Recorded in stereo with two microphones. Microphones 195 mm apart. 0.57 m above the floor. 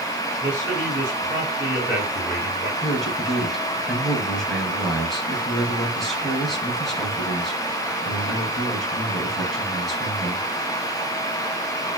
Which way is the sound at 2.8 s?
Centre (ahead or behind).